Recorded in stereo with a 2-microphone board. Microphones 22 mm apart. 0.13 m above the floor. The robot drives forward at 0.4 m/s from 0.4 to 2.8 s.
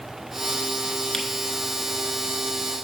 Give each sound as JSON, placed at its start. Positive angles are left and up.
{"t": 1.1, "sound": "a camera shutter", "side_deg": 20, "distance_m": 0.9}